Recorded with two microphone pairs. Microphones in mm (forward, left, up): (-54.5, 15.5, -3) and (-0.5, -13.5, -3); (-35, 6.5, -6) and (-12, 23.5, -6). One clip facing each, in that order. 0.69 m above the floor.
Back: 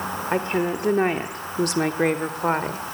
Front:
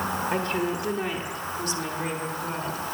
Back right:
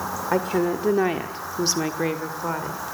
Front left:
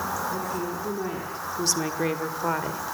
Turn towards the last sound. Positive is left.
turn(degrees=110)